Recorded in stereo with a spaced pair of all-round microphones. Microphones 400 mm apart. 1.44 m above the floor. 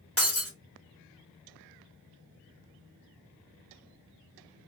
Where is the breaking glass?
35° left (ahead or behind), 1.2 m.